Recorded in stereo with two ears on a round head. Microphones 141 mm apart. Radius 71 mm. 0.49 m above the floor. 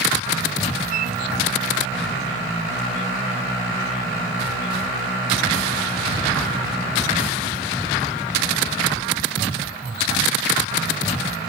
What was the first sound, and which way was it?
A flute, 60° right (ahead or behind).